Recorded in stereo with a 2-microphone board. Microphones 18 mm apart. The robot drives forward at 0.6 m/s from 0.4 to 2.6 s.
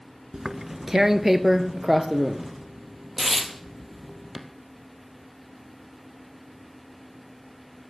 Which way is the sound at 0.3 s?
40° right (ahead or behind).